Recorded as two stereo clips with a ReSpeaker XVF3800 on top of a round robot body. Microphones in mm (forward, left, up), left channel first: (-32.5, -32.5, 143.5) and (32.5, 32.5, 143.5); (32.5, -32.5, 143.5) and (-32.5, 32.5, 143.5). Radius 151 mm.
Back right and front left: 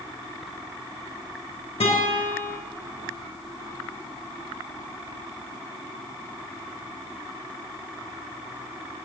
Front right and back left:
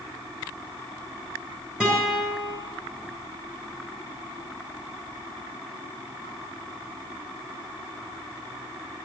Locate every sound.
1.8 s a guitar: 145° right, 3 m